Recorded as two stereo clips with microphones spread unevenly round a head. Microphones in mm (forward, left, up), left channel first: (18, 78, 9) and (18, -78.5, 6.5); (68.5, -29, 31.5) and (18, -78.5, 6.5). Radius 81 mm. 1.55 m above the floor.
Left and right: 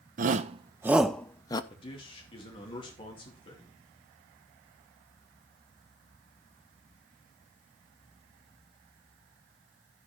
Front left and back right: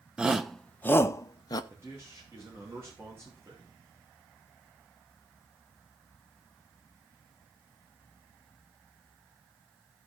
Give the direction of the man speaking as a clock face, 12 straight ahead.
7 o'clock.